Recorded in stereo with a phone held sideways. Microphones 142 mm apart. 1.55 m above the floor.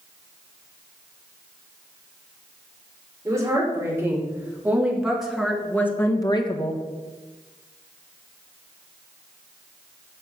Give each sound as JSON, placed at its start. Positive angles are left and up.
{"t": 3.2, "sound": "a woman speaking", "side_deg": -20, "distance_m": 5.0}